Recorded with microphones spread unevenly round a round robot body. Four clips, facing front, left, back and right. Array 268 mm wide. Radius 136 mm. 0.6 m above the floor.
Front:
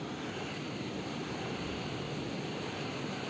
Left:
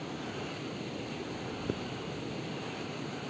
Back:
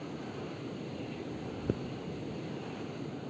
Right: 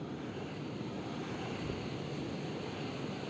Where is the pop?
155° left.